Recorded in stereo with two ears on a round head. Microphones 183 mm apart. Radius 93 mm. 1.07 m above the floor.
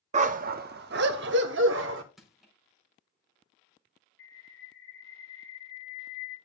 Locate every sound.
0.1 s a dog barking: 35° right (ahead or behind), 0.6 m; by 2.0 s 70° right (ahead or behind), 1.5 m
2.2 s crushing: centre (ahead or behind), 4.5 m
4.2 s a bird: 65° left (ahead or behind), 6.5 m